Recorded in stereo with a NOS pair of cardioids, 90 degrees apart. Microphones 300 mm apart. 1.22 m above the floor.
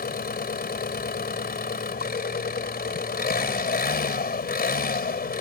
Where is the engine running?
30° left.